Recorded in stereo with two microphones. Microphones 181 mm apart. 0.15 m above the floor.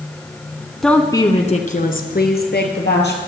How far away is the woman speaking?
About 1.3 m.